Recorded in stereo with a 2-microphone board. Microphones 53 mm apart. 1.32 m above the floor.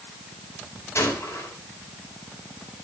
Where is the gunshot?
60° left (ahead or behind), 4 m.